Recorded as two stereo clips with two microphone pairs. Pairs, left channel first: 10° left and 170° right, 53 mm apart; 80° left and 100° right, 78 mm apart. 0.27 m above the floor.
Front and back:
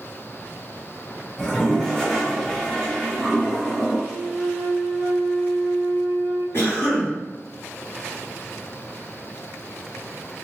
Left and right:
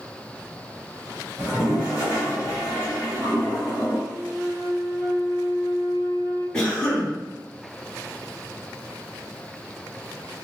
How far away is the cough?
About 1.5 m.